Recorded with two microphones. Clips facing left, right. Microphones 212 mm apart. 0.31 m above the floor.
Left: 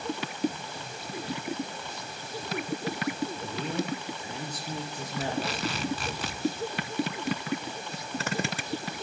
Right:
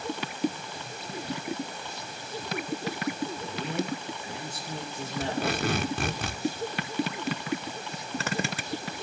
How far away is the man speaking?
About 5.5 m.